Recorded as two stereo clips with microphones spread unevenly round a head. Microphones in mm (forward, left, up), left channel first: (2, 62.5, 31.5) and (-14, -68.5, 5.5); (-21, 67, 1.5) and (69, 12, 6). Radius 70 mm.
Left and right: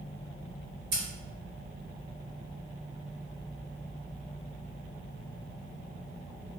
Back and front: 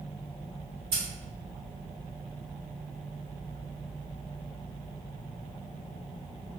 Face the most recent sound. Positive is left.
turn(degrees=-70)